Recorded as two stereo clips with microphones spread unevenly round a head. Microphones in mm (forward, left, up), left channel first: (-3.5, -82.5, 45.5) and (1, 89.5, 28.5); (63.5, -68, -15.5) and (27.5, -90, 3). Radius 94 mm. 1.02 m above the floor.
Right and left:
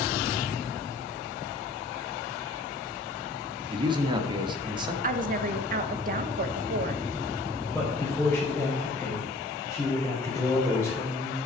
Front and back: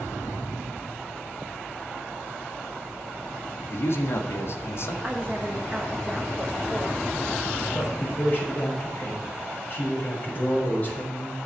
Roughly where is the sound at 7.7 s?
Ahead.